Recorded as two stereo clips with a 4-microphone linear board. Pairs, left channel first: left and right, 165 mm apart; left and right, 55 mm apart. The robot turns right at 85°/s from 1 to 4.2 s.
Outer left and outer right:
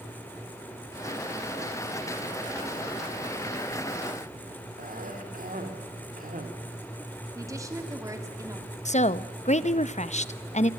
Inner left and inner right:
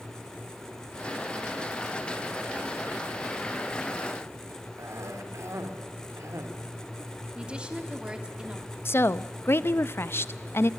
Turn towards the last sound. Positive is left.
turn(degrees=45)  # may be behind; listen again after turning